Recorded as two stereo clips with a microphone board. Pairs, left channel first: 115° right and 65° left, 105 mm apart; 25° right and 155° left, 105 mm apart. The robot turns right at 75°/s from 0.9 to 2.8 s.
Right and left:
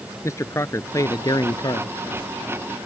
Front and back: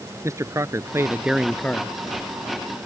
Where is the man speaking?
155° right; by 1.9 s 80° right.